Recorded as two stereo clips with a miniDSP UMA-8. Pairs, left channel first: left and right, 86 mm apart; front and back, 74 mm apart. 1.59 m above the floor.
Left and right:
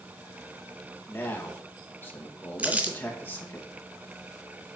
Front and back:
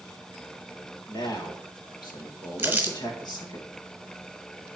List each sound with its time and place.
1.1 s a man speaking: 25° left, 1.8 m
2.6 s crumpling: 140° right, 1.6 m